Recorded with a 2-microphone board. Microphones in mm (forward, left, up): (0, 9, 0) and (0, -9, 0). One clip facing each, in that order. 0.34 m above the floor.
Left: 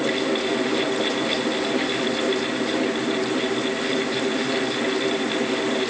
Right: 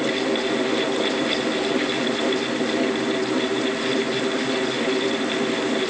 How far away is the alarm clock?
No alarm clock in this recording.